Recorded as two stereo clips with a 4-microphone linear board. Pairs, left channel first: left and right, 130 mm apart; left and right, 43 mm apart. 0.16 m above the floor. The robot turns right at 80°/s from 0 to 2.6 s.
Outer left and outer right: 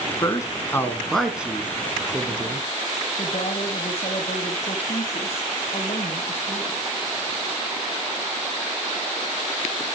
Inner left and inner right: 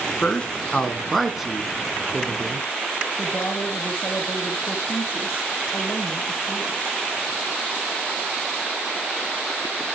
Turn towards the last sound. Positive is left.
turn(degrees=50)  # may be behind; listen again after turning